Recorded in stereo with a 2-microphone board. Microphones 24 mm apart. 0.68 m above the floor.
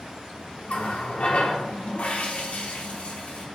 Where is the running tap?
70° left (ahead or behind), 0.8 m.